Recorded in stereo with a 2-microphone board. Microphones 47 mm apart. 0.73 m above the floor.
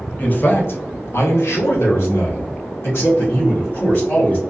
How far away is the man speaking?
About 0.7 m.